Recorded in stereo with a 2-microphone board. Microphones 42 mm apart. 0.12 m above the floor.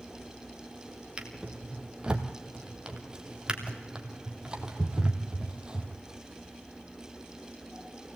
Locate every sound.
1.2 s a drawer: 20° right (ahead or behind), 1.9 m